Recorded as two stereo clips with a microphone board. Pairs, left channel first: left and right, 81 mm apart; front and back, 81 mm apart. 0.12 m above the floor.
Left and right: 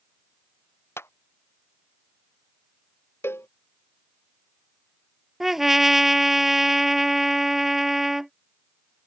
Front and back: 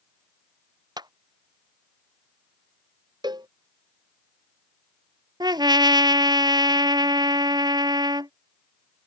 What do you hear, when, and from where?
1.0 s a clap: 150° left
3.2 s a cowbell: 150° left
5.4 s a trumpet: 175° right